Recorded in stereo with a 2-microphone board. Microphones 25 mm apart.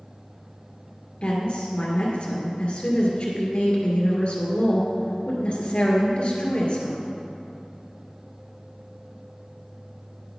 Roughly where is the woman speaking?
Left.